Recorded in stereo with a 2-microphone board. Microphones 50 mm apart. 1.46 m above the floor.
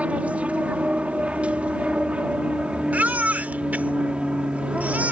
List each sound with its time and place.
0.0 s an aircraft: 30° right (ahead or behind); by 5.1 s 20° right (ahead or behind)
2.9 s a baby crying: 35° right (ahead or behind)